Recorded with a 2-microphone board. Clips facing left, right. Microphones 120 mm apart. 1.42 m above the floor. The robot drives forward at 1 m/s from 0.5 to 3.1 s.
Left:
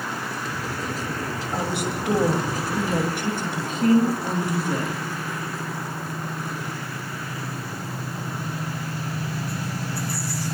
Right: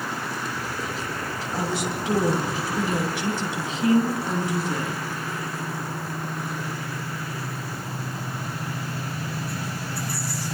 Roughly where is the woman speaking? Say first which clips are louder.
Even; left.